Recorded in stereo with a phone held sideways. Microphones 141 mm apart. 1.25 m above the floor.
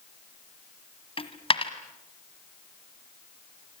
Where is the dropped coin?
40° left (ahead or behind), 1.5 m.